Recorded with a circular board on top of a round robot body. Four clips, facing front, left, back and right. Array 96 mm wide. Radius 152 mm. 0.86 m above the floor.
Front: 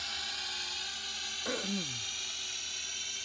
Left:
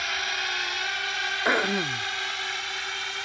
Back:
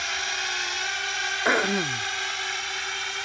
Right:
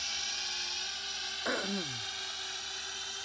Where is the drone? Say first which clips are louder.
Left 14 dB, back 13 dB; 130° left; by 3.3 s 145° left.